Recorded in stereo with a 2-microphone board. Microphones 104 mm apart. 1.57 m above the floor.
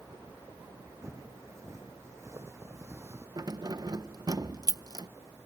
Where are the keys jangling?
40° right (ahead or behind).